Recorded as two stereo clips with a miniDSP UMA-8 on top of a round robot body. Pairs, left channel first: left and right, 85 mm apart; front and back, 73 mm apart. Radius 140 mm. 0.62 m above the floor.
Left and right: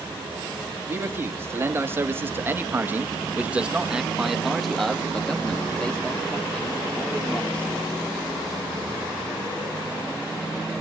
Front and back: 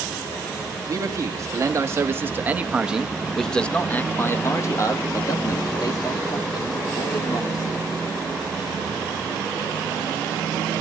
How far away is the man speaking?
About 1.9 m.